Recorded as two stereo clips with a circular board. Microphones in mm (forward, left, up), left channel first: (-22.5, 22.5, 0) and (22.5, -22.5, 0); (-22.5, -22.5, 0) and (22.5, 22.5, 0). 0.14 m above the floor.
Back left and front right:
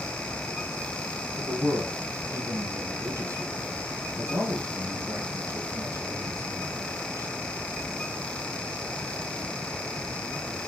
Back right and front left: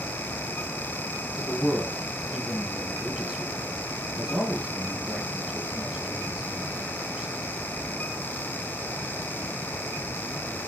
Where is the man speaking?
30° right, 2.5 m.